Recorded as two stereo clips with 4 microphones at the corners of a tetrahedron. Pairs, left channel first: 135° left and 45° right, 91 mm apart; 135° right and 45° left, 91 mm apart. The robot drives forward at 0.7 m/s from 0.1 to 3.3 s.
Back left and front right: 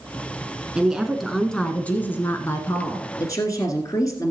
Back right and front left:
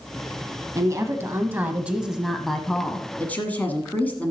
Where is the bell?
I don't hear a bell.